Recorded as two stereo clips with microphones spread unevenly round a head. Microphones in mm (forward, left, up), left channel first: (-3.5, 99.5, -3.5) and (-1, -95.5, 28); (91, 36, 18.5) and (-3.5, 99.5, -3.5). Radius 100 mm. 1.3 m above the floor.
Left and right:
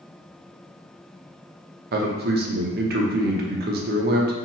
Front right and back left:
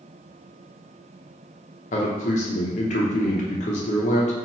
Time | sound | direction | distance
1.9 | a man speaking | 50° right | 0.7 m